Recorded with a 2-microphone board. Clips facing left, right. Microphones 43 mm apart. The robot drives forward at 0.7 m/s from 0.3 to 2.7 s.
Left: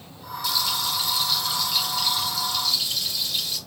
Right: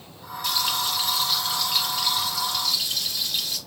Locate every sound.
0.4 s frying: 50° right (ahead or behind), 1.0 m; by 3.6 s 20° right (ahead or behind), 1.9 m